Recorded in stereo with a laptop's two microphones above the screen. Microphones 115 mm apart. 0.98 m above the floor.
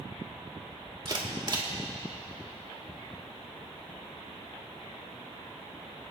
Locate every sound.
1.1 s a camera shutter: 40° right (ahead or behind), 2 m